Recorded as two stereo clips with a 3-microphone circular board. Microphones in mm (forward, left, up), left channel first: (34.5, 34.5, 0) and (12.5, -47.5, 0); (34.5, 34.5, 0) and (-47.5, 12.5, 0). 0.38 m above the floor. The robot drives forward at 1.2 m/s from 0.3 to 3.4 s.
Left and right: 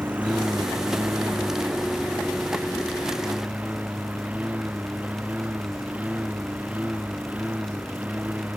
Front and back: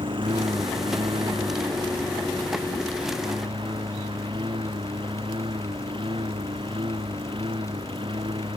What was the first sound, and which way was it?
A lawn mower, straight behind.